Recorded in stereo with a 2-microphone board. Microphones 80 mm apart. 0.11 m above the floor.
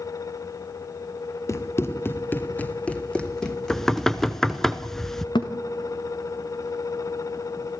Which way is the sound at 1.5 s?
35° left (ahead or behind).